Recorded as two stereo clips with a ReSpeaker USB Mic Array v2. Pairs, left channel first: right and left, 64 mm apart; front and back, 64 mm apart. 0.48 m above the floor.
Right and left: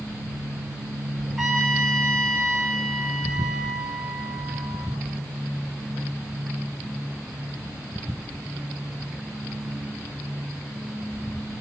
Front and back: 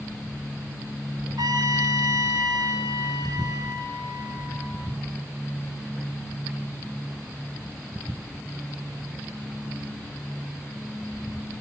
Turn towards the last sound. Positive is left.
turn(degrees=175)